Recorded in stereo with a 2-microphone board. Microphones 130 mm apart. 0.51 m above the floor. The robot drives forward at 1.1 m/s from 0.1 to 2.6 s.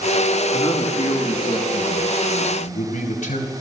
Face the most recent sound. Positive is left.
turn(degrees=75)  # may be behind; listen again after turning